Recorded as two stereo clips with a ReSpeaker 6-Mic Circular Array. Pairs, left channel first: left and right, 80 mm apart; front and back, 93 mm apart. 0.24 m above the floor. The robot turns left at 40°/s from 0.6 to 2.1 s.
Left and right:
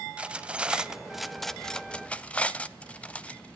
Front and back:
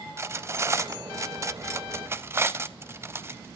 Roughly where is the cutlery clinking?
Behind right.